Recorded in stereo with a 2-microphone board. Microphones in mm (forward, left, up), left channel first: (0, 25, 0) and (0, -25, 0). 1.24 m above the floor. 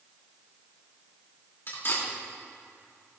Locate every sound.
1.7 s cutlery clinking: 45° left (ahead or behind), 2.5 m